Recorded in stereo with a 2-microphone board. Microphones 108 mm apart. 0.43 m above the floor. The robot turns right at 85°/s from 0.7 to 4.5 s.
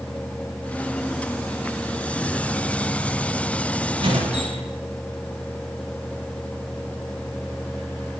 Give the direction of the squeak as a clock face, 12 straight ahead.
5 o'clock.